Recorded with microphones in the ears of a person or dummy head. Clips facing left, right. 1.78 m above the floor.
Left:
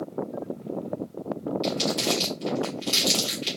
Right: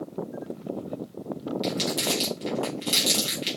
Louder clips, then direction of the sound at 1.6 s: Left 2 dB; 20° right (ahead or behind).